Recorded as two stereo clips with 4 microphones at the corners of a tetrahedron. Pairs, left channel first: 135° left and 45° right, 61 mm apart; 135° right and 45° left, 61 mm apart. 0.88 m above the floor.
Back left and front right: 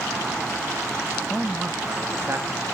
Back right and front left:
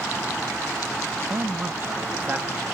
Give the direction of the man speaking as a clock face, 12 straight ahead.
10 o'clock.